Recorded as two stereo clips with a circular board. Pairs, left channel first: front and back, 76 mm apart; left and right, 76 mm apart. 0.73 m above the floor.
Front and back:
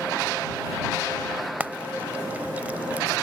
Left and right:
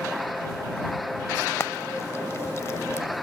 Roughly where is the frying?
Behind left.